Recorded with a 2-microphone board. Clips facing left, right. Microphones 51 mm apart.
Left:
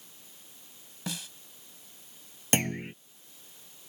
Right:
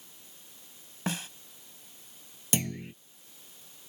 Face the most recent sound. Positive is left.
turn(degrees=45)  # may be behind; listen again after turning